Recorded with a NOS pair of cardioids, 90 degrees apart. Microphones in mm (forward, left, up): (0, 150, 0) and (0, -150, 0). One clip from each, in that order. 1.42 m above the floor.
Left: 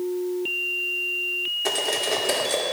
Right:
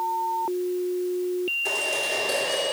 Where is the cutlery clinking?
50° left, 2.5 m.